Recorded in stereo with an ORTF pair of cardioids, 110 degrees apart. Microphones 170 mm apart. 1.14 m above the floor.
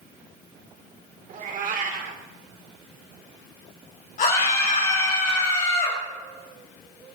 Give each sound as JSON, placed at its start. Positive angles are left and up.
{"t": 1.3, "sound": "a cat meowing", "azimuth_deg": -55, "distance_m": 1.9}
{"t": 4.2, "sound": "a scream", "azimuth_deg": 45, "distance_m": 4.5}